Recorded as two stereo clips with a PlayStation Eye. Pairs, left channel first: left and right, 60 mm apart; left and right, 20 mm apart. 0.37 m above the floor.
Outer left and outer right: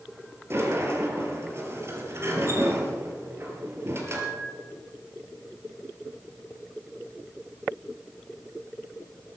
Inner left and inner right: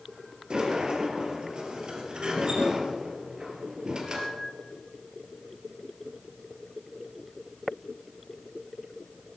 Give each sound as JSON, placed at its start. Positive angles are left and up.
{"t": 0.5, "sound": "a sliding door", "side_deg": -45, "distance_m": 3.0}